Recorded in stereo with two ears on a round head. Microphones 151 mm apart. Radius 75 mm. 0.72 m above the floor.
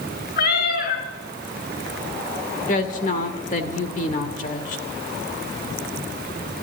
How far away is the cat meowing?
About 3.5 m.